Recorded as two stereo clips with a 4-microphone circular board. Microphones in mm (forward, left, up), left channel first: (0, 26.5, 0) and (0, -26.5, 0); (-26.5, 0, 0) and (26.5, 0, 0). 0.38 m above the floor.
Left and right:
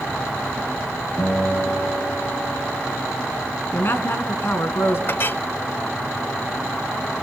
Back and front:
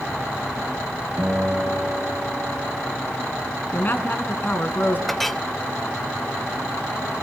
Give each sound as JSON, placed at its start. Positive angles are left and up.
{"t": 1.2, "sound": "a guitar", "azimuth_deg": 60, "distance_m": 6.0}
{"t": 3.7, "sound": "a woman speaking", "azimuth_deg": 130, "distance_m": 3.5}
{"t": 5.1, "sound": "a clink", "azimuth_deg": 95, "distance_m": 0.6}